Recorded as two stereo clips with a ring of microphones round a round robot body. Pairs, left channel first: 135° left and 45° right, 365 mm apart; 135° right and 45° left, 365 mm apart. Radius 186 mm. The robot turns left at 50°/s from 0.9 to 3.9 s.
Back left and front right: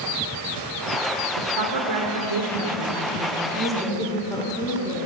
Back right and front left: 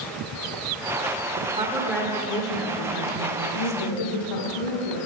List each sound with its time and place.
1.4 s a woman speaking: 20° right, 2 m; by 4.5 s 145° right, 2 m
3.5 s a woman speaking: 110° right, 5.5 m; by 5.1 s 130° right, 5.5 m